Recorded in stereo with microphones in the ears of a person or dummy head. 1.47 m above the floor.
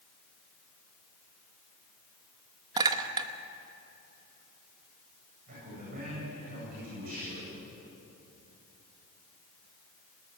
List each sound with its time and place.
2.8 s a clink: 25° right (ahead or behind), 1.1 m
5.5 s a man speaking: 50° right (ahead or behind), 9 m